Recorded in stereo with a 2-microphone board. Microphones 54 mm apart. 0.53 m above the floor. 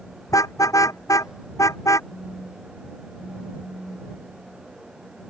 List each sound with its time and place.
0.3 s a car horn: 80° left; by 2.0 s 70° left (ahead or behind)
2.1 s a phone buzzing: 5° left (ahead or behind)